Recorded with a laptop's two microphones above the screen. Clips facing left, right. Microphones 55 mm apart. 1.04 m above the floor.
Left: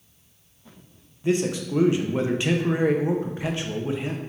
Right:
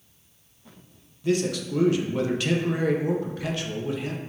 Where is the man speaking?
25° left (ahead or behind), 0.5 m.